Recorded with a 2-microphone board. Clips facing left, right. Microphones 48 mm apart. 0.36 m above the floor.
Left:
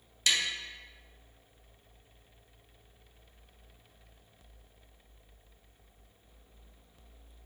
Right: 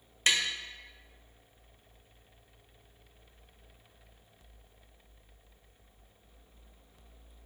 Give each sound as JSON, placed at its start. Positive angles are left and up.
{"t": 0.3, "sound": "tapping", "side_deg": -35, "distance_m": 0.5}